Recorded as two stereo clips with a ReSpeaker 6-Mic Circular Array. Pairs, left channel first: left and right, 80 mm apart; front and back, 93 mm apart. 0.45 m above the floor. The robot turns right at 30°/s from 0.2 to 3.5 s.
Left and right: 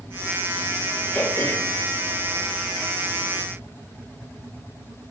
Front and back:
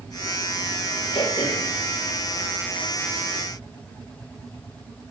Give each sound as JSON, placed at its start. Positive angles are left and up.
{"t": 1.1, "sound": "throat clearing", "azimuth_deg": 30, "distance_m": 4.5}